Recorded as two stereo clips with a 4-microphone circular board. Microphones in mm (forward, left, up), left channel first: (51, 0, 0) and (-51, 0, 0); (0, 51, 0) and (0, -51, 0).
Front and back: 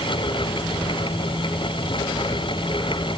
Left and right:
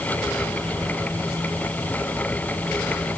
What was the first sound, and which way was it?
Only background noise.